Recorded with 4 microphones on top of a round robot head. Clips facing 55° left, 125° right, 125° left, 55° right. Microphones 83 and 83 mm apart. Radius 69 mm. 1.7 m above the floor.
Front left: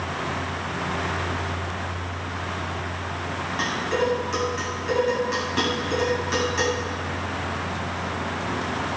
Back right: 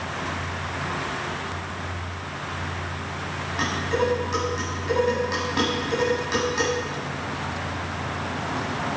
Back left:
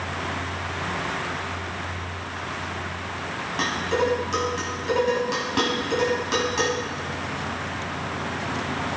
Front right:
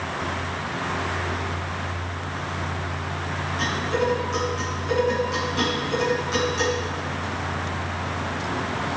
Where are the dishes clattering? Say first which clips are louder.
Back right 1 dB, back left 1 dB; 155° left, 8 m.